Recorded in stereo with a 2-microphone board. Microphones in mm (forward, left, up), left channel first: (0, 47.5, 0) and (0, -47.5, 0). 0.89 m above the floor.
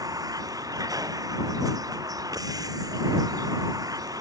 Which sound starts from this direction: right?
A vehicle, at 0.0 s.